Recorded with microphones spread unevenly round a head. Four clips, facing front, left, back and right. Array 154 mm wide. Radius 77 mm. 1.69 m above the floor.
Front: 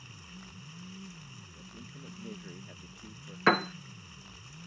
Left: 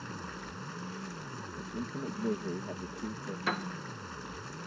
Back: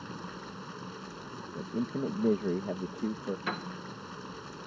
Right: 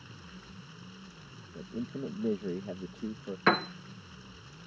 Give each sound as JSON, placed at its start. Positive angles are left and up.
{"t": 0.0, "sound": "running water", "azimuth_deg": 145}
{"t": 1.5, "sound": "a man speaking", "azimuth_deg": -175}
{"t": 3.5, "sound": "a piano", "azimuth_deg": -35}